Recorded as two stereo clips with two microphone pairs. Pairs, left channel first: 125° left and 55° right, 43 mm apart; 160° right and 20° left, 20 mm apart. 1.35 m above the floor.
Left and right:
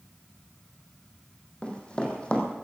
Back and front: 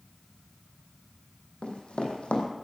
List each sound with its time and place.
1.6 s running footsteps: 175° right, 3 m